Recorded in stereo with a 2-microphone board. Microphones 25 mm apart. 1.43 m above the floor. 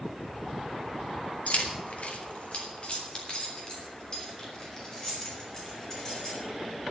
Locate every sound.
1.5 s keys jangling: 75° left (ahead or behind), 1.9 m; by 6.3 s 20° left (ahead or behind), 6 m